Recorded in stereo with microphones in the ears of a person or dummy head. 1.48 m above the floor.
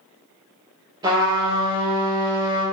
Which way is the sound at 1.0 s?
20° right (ahead or behind).